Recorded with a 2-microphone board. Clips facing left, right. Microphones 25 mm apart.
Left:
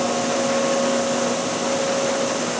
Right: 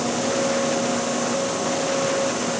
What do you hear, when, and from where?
Only background noise.